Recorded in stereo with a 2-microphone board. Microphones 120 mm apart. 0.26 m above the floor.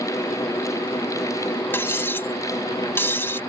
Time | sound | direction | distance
1.7 | cutlery clinking | 20° left (ahead or behind) | ?